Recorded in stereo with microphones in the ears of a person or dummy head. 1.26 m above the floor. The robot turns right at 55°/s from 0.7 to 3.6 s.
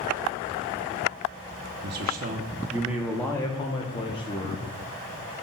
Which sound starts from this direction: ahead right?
A man speaking, at 1.8 s.